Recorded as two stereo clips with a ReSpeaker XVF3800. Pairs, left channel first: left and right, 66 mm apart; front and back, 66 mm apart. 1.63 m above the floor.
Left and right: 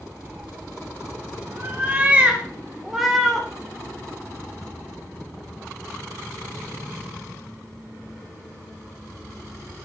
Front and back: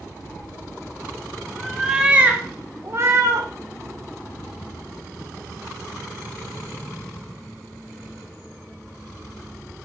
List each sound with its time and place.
0.2 s a cat meowing: 50° right, 1.8 m; by 3.5 s straight behind, 1.7 m